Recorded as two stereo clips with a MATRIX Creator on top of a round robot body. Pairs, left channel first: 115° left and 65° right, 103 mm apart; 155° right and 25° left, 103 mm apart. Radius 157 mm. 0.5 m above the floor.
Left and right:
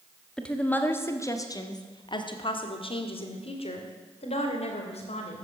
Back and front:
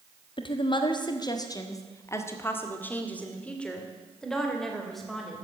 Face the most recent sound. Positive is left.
turn(degrees=110)